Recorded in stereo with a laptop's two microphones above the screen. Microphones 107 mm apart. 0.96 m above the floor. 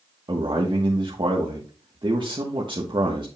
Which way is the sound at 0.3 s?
50° right (ahead or behind).